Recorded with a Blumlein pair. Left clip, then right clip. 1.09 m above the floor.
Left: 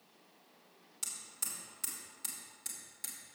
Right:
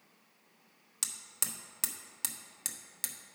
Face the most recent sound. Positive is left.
turn(degrees=-55)